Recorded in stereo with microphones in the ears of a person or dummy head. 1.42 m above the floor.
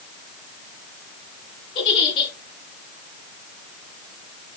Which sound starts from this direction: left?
A giggle, at 1.8 s.